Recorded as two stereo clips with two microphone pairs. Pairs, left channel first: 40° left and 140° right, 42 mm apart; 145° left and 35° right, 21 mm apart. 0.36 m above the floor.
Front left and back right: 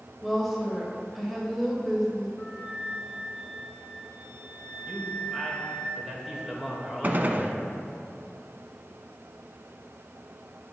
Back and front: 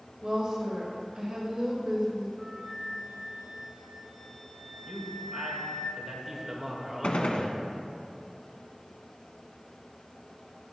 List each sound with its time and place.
0.2 s a woman speaking: 55° right, 1.7 m
2.4 s a flute: 20° left, 1.8 m
4.9 s a man speaking: 75° right, 1.5 m
7.0 s a gunshot: 175° left, 0.6 m